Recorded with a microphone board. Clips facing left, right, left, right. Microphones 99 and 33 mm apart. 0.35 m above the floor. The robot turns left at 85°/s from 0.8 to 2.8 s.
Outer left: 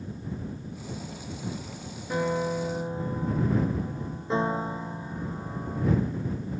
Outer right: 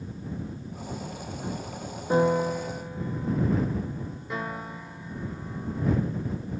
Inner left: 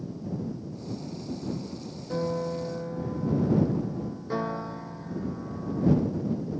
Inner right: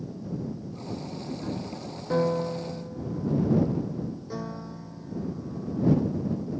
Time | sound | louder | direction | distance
2.1 | a piano | outer right 4 dB, inner right 4 dB | 150° right | ?